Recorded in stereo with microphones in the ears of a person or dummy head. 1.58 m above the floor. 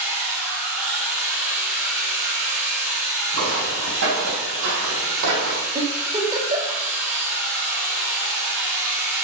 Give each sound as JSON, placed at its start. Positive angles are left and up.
{"t": 0.0, "sound": "a machine running", "side_deg": -10, "distance_m": 3.5}
{"t": 3.3, "sound": "footsteps", "side_deg": -60, "distance_m": 3.5}
{"t": 5.8, "sound": "a giggle", "side_deg": -20, "distance_m": 2.5}